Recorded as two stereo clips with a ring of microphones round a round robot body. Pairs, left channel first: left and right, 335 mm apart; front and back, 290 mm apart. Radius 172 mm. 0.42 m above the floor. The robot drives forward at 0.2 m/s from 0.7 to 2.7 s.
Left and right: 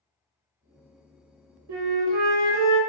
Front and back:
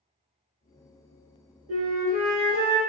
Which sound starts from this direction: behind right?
A flute, at 1.7 s.